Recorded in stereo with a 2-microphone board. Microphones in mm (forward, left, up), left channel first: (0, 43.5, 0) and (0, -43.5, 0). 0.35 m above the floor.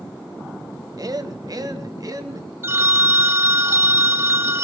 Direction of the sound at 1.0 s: 50° right (ahead or behind).